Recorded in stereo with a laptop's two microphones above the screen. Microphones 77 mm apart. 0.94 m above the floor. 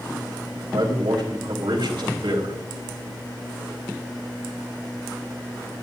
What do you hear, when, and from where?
0.7 s a man speaking: 80° right, 4 m